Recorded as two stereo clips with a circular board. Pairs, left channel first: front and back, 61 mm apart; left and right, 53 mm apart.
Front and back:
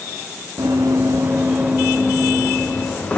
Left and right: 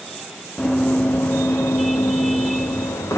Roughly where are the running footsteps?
Behind.